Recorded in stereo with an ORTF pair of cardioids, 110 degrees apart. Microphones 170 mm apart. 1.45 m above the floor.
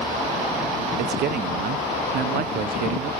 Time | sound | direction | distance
1.0 | a man speaking | 70° right | 0.7 m